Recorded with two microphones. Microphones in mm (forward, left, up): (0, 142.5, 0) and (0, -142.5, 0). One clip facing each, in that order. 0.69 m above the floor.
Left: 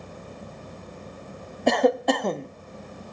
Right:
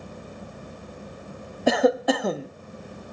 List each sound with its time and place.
1.7 s a cough: 5° right (ahead or behind)